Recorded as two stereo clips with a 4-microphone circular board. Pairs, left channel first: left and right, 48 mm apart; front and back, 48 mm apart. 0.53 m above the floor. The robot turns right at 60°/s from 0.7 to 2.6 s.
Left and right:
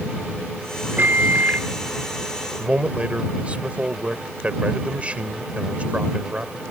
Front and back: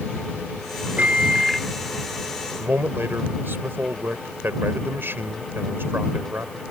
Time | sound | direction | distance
1.0 | a microwave | 125° right | ?
2.6 | a man speaking | 150° right | ?